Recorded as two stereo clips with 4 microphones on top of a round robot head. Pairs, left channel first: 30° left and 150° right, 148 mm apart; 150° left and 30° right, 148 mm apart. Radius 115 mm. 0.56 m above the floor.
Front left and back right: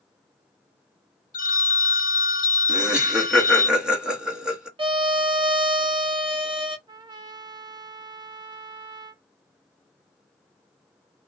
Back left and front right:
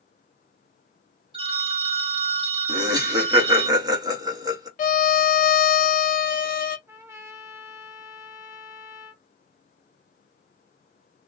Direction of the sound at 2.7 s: 70° right.